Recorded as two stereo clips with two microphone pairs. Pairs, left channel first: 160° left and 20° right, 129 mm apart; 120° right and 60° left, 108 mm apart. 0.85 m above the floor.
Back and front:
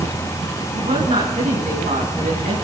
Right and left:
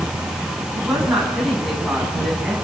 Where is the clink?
No clink in this recording.